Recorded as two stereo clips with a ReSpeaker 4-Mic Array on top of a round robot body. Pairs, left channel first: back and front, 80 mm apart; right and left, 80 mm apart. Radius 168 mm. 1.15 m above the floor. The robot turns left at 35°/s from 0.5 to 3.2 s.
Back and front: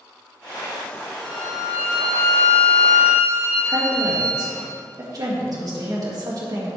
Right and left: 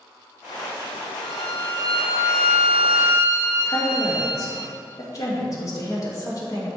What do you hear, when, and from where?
1.2 s a violin: 50° right, 1.4 m; by 4.7 s 120° right, 1.4 m
3.6 s a woman speaking: 40° right, 2 m